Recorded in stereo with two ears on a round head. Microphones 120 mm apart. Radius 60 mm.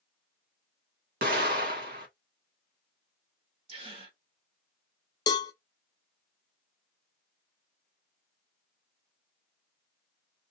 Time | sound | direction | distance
1.2 | an explosion | 70° right (ahead or behind) | 1.6 m
3.7 | a gasp | 45° right (ahead or behind) | 1.4 m
5.3 | a cowbell | 30° left (ahead or behind) | 0.6 m